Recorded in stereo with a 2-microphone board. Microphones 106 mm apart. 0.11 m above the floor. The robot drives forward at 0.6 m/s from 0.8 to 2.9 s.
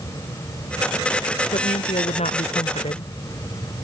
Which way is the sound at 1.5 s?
75° left (ahead or behind).